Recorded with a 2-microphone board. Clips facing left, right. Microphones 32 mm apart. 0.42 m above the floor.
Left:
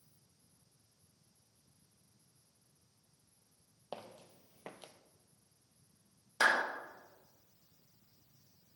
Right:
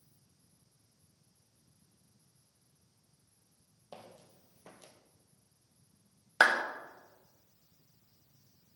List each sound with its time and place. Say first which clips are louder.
3.9 s footsteps: left 4 dB; 45° left (ahead or behind), 1.0 m; by 4.9 s 35° left (ahead or behind), 0.9 m
6.4 s a clap: right 4 dB; 60° right (ahead or behind), 1.4 m